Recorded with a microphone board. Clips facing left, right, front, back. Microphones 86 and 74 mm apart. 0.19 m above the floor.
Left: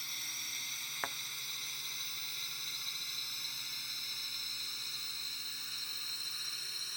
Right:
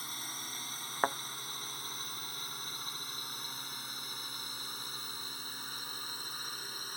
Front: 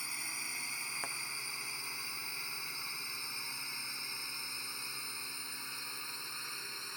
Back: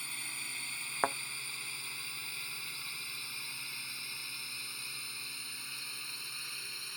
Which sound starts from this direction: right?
A drone, at 0.0 s.